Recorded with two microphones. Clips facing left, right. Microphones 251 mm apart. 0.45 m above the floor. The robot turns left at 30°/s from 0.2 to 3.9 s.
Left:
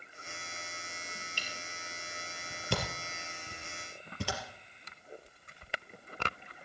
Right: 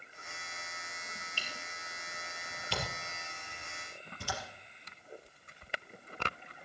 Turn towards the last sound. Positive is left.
turn(degrees=90)